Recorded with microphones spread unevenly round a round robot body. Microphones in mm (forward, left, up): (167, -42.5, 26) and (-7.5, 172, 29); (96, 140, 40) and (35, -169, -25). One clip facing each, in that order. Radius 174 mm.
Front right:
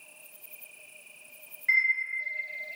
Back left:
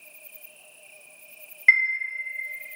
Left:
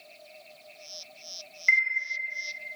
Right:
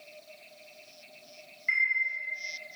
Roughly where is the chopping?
No chopping in this recording.